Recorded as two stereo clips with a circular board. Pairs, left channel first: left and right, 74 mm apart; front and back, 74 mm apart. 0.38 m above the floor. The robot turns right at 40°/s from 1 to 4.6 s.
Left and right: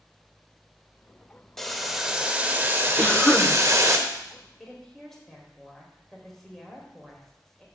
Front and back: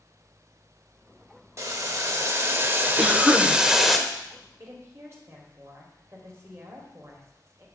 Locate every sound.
1.6 s boiling: 175° left, 0.7 m; by 4.0 s 90° right, 0.7 m
3.0 s a cough: 85° left, 1.0 m; by 3.5 s 105° left, 1.0 m
4.6 s a woman speaking: 170° left, 1.8 m